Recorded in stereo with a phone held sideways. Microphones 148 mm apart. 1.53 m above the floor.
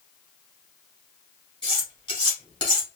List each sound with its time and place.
1.6 s cutlery clinking: 30° left (ahead or behind), 2 m